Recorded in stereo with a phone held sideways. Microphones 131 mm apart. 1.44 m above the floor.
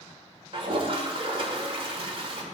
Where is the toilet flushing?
45° right (ahead or behind), 1.6 m.